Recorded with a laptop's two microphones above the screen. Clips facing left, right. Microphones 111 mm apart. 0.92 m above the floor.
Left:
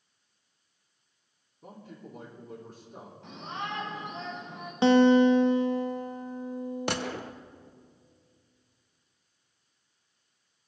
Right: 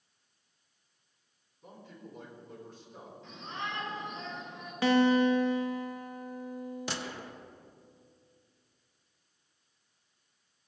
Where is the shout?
65° left (ahead or behind), 4.5 m.